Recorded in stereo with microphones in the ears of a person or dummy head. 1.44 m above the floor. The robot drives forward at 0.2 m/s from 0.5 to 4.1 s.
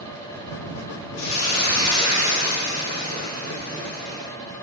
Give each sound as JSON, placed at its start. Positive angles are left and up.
{"t": 1.2, "sound": "a hiss", "side_deg": 80, "distance_m": 0.8}